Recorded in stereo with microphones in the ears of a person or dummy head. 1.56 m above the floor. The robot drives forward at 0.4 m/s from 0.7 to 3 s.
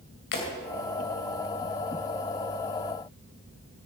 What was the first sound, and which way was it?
Breaking glass, 65° left (ahead or behind).